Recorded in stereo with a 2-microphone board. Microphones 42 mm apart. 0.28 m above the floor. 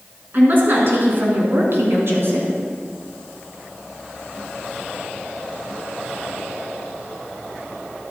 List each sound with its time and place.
0.3 s a woman speaking: 45° right (ahead or behind), 3 m; by 2.5 s 65° right (ahead or behind), 2.5 m